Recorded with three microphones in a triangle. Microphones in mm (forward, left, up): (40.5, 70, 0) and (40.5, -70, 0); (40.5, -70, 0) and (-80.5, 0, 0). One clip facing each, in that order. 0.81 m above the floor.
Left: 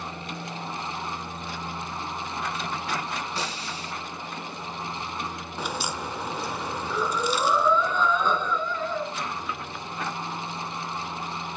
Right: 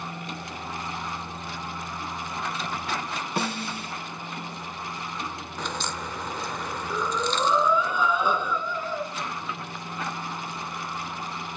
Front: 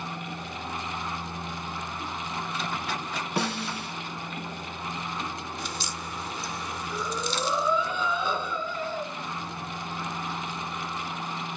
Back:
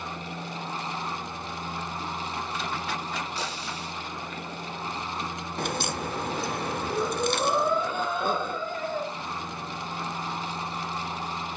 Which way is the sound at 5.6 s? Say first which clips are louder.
Left 2 dB, back 6 dB; 170° left.